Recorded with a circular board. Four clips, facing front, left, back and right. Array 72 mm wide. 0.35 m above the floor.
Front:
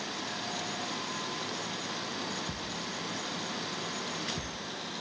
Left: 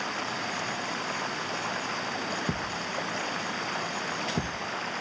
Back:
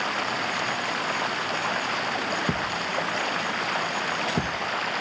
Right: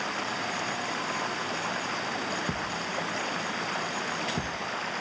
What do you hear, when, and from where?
0.0 s running water: straight behind
2.5 s a thud: 170° left